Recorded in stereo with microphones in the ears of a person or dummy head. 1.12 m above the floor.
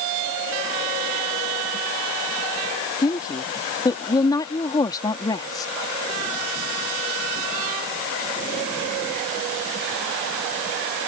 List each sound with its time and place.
3.0 s a woman speaking: 20° left (ahead or behind)